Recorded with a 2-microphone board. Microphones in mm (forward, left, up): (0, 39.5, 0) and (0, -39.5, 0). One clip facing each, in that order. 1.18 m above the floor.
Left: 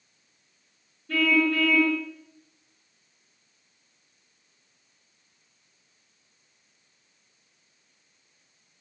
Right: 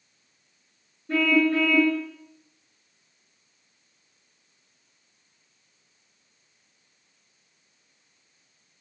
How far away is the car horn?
About 9.5 m.